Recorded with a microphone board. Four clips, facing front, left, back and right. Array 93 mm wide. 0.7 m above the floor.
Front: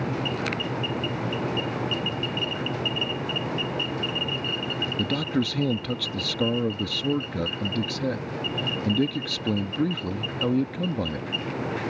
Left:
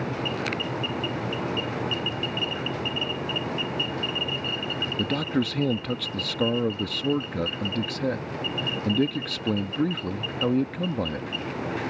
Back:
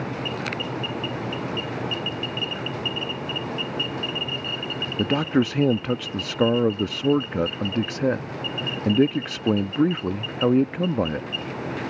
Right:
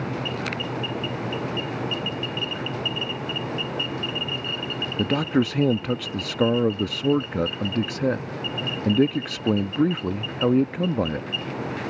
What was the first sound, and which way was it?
A man speaking, 150° right.